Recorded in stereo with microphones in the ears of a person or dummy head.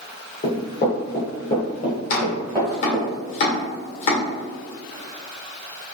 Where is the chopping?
35° left (ahead or behind), 1.8 m.